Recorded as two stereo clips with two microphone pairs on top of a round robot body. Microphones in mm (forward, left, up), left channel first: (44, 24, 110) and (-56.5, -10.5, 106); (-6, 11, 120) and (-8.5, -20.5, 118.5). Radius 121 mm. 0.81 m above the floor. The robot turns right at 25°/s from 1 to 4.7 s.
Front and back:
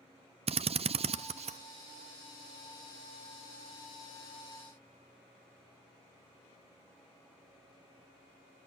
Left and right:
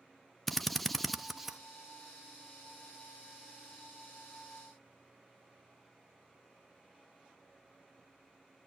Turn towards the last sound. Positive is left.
turn(degrees=-95)